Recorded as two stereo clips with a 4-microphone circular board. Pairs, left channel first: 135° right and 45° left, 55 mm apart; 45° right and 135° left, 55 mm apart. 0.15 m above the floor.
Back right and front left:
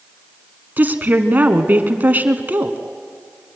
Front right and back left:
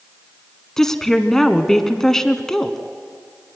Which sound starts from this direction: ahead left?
A woman speaking, at 0.8 s.